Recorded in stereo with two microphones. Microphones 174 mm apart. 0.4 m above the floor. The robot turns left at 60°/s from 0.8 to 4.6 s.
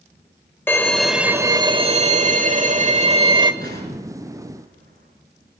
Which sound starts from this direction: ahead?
A violin, at 0.7 s.